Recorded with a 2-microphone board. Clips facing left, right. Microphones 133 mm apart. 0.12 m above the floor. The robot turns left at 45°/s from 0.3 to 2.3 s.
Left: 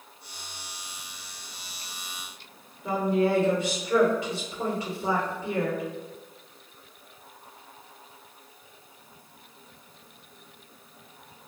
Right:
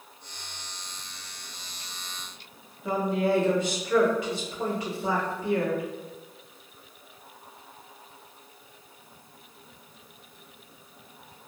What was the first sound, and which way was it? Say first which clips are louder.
A woman speaking: left 1 dB; 30° left (ahead or behind).